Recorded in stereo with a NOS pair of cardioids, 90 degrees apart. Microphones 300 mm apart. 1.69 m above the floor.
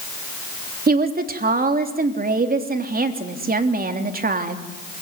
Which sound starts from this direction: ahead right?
A woman speaking, at 0.9 s.